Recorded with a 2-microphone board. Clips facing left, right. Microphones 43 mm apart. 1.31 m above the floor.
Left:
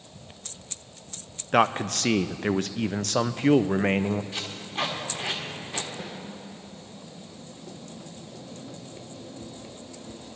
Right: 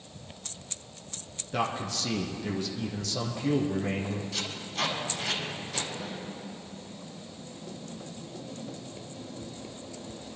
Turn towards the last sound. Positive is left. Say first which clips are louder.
# even
turn(degrees=75)  # may be behind; listen again after turning